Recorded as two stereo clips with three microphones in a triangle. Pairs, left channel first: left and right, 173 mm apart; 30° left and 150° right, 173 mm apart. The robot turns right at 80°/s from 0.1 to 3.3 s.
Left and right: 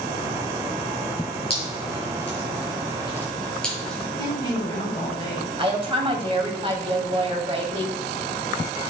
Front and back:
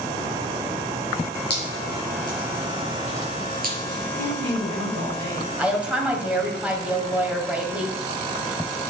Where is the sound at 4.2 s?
155° left, 5 m.